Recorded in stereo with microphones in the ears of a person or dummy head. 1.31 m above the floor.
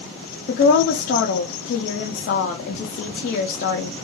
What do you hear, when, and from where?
0.5 s a woman speaking: 60° left (ahead or behind), 0.5 m